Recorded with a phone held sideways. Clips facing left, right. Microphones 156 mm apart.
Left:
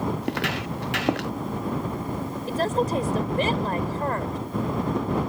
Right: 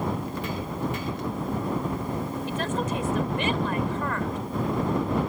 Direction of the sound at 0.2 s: 80° left.